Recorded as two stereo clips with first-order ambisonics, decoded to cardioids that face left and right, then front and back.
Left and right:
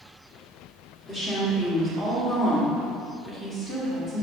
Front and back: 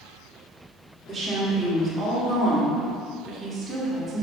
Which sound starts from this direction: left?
A woman speaking, at 1.1 s.